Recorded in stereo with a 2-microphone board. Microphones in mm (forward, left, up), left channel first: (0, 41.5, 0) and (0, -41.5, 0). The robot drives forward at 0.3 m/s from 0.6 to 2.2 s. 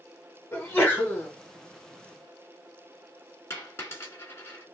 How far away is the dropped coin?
About 1.1 m.